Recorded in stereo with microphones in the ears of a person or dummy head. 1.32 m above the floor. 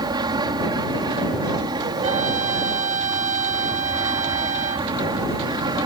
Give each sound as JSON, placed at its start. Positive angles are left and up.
{"t": 0.0, "sound": "an aircraft", "side_deg": -20}
{"t": 2.0, "sound": "a trumpet", "side_deg": -40}